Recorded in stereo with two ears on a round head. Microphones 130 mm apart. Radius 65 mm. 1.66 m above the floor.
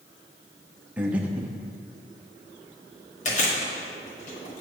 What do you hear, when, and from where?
1.0 s breathing: 10° right (ahead or behind), 0.7 m
3.2 s chewing: 55° left (ahead or behind), 1.7 m